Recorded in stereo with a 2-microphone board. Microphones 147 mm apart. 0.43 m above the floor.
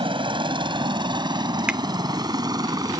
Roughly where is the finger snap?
Centre.